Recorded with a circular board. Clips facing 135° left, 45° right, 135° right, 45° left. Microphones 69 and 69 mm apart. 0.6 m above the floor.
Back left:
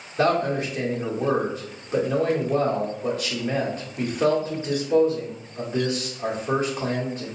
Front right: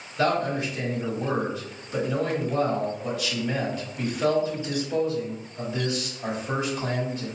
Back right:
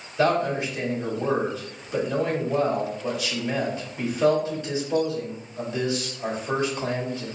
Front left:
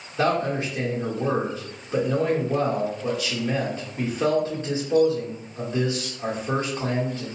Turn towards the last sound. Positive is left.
turn(degrees=90)